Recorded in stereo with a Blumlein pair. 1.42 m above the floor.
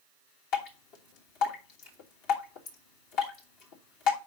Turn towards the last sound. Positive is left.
turn(degrees=45)